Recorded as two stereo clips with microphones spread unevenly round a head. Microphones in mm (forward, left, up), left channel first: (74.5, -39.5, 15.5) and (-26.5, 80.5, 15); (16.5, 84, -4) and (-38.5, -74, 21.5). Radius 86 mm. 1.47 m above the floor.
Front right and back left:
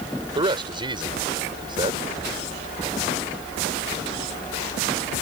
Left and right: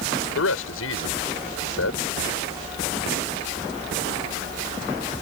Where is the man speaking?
70° left.